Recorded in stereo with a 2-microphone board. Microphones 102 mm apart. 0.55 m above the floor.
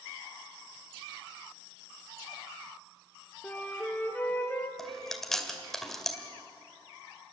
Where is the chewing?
5° left (ahead or behind), 2 m.